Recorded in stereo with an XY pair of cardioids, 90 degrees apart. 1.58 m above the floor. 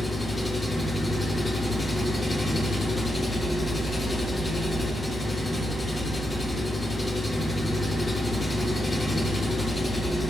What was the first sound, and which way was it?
An engine running, 25° left.